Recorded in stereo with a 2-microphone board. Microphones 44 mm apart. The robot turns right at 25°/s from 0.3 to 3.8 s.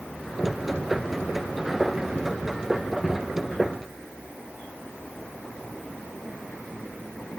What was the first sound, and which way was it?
Only background noise.